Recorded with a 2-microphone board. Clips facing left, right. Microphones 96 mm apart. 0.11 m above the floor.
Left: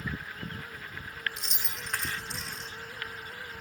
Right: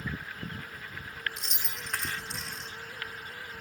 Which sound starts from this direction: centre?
Keys jangling, at 1.4 s.